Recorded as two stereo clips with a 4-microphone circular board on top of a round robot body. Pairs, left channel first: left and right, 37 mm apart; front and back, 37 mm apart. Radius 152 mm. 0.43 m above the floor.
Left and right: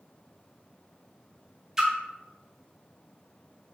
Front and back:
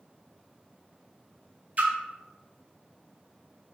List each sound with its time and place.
1.8 s a splash: 160° right, 0.9 m